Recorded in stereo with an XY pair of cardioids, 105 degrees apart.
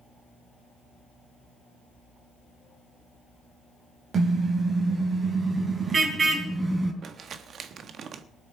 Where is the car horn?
50° right, 2.5 m; by 6.9 s 30° right, 3.5 m.